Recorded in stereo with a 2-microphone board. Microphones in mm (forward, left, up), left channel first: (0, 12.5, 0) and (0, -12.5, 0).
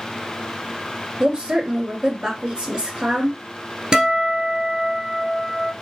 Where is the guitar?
25° right (ahead or behind), 1.0 m.